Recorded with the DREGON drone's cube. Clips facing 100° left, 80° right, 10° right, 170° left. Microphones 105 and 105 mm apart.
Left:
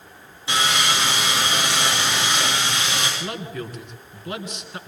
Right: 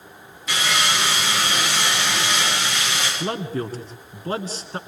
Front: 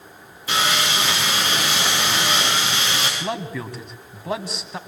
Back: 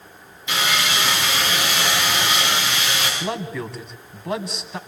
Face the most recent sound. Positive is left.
turn(degrees=-100)